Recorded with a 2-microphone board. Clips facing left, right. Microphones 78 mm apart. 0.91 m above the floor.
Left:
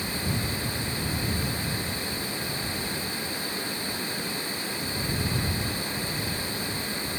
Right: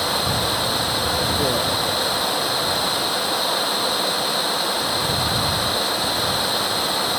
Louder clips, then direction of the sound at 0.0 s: Right 9 dB; 70° right (ahead or behind).